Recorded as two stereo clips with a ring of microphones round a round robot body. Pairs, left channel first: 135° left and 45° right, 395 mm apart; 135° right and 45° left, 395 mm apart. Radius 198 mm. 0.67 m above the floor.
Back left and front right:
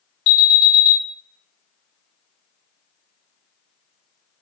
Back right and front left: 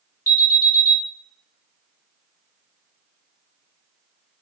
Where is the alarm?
145° left, 1.5 m.